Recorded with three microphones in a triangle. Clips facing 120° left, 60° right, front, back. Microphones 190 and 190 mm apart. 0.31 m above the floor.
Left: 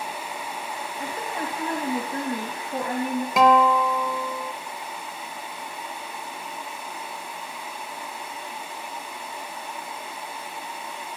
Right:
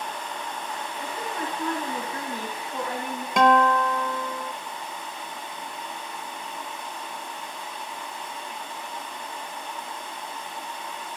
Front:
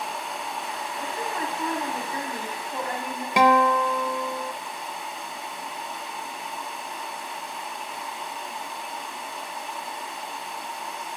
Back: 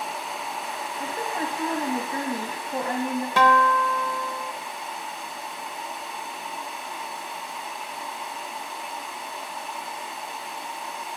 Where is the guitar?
40° left, 1.0 m.